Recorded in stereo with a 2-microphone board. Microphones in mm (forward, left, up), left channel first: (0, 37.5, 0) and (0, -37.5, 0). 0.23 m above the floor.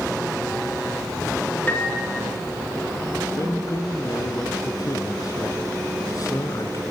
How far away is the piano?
About 3.5 m.